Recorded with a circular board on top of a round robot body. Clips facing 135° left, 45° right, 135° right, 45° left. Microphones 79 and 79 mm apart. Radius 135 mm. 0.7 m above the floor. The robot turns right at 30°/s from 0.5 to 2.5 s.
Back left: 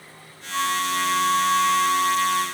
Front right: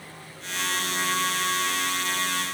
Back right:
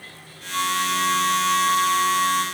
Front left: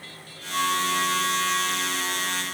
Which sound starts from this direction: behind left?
A flute, at 0.5 s.